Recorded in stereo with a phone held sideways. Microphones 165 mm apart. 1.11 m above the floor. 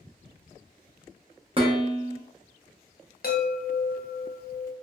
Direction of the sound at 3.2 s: 70° left (ahead or behind).